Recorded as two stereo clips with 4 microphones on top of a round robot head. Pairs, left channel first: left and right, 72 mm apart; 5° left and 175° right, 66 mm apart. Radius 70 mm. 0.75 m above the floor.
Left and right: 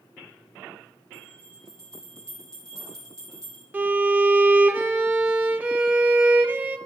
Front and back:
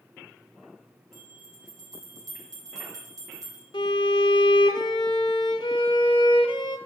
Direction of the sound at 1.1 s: 170° left.